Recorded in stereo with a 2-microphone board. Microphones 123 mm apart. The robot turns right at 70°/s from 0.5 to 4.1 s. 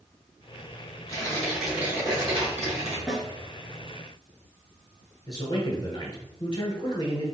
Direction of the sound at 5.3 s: 35° left (ahead or behind).